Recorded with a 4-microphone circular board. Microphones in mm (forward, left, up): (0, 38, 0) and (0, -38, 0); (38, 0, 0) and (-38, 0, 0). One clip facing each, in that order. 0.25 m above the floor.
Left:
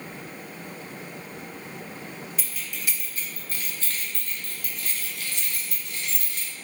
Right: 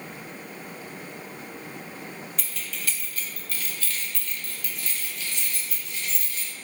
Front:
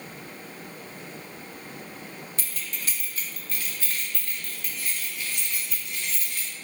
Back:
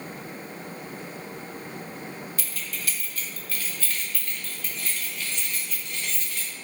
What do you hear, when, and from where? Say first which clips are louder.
2.4 s keys jangling: even, back 1 dB; 15° left, 1.1 m; by 6.5 s 85° left, 2.5 m